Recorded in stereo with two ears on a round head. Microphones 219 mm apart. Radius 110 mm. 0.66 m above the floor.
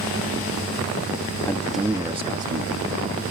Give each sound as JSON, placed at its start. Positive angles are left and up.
{"t": 1.4, "sound": "a man speaking", "side_deg": 15}